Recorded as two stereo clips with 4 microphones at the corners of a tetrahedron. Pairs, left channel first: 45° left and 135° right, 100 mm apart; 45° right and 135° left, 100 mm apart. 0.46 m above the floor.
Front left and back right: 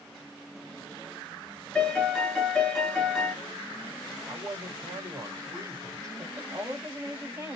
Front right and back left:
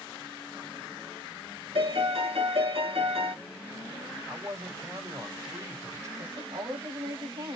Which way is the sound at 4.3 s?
Straight behind.